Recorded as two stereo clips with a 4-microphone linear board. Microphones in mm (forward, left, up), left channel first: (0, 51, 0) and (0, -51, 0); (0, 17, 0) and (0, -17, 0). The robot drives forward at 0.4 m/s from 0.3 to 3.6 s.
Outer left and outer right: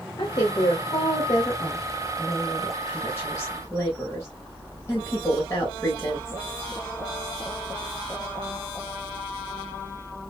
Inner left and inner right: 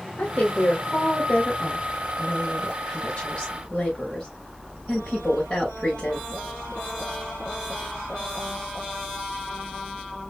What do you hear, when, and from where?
0.2 s a woman speaking: 45° left (ahead or behind), 1.7 m; by 6.4 s 30° left (ahead or behind), 2.5 m